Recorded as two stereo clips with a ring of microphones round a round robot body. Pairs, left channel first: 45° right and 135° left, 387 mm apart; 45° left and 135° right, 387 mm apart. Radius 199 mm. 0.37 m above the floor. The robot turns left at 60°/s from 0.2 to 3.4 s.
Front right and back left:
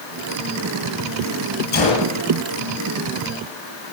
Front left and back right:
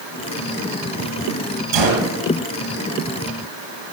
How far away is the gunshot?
About 9.5 m.